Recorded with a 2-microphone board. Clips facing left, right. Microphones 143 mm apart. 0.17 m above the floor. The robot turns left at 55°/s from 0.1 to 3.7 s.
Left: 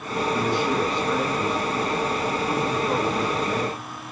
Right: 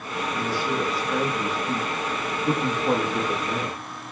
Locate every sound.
0.3 s a man speaking: 30° left, 7 m; by 3.8 s 155° right, 7 m